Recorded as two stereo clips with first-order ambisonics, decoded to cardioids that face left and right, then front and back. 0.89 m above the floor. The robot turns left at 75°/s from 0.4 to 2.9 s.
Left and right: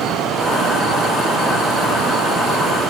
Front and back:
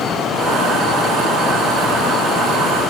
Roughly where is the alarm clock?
I don't hear an alarm clock.